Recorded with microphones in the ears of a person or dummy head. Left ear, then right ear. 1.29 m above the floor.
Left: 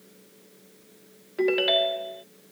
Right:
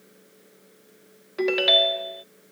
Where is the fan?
45° right (ahead or behind).